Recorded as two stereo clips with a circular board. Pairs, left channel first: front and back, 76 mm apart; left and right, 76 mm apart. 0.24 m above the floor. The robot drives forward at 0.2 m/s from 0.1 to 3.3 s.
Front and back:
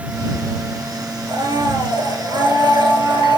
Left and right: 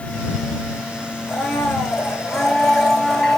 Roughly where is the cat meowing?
No cat meowing in this recording.